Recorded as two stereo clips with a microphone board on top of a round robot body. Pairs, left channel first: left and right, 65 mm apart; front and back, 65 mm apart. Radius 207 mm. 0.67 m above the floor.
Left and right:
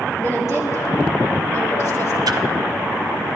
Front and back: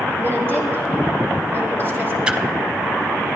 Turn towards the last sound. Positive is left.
turn(degrees=-110)